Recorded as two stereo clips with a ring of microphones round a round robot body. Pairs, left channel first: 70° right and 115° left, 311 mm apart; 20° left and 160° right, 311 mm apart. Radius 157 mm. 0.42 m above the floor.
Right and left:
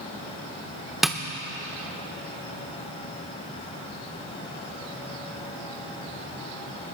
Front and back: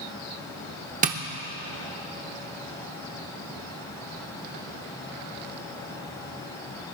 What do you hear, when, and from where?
1.0 s tapping: 160° right, 1.0 m